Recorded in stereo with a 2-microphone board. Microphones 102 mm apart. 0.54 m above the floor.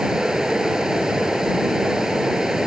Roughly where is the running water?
Centre.